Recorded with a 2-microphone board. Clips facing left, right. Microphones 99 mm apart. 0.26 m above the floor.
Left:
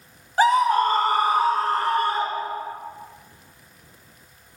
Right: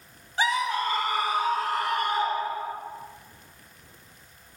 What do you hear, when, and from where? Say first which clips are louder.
0.4 s a scream: left 9 dB; 45° left (ahead or behind), 1.9 m; by 2.8 s 30° left (ahead or behind), 4.5 m